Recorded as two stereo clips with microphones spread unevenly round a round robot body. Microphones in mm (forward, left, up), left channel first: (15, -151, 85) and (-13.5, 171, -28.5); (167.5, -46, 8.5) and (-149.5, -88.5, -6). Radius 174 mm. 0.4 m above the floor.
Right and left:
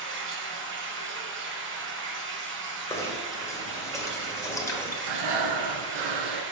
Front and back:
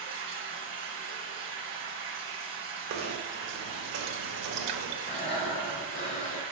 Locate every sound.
0.0 s running water: 135° left, 1.2 m
2.9 s knocking: straight behind, 0.9 m
5.0 s breathing: 75° left, 1.1 m